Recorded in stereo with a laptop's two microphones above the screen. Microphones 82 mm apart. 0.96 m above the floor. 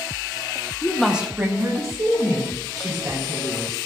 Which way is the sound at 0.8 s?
25° left (ahead or behind).